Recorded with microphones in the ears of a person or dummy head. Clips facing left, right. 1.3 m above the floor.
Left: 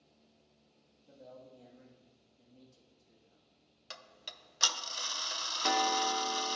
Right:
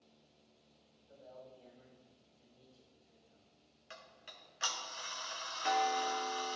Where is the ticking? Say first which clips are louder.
Left 2 dB; 45° left (ahead or behind), 0.6 m.